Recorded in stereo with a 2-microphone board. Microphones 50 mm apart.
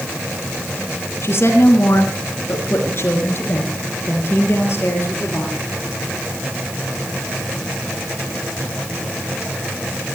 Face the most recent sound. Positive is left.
turn(degrees=50)  # may be behind; listen again after turning